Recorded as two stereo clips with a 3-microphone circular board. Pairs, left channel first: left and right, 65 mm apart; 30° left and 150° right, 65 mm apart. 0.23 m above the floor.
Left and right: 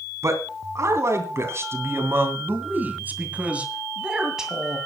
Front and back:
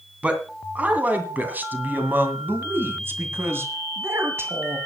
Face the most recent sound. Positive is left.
turn(degrees=-175)